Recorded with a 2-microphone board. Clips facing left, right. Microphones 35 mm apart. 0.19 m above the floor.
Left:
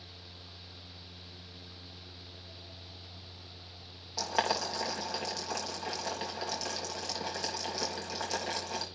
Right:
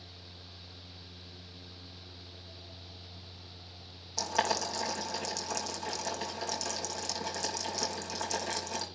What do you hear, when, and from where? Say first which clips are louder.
4.2 s boiling: even; 20° left (ahead or behind), 4 m